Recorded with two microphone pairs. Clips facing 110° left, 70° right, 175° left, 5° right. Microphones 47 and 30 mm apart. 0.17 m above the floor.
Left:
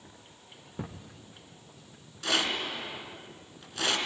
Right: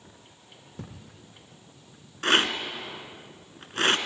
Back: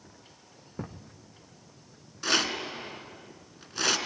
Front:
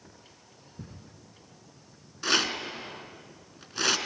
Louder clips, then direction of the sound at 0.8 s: Left 3 dB, back 7 dB; straight behind.